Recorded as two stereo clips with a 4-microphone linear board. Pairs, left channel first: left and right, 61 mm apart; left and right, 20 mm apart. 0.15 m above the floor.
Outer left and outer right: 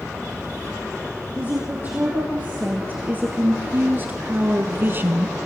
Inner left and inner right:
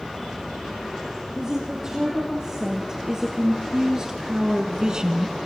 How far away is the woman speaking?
About 5 m.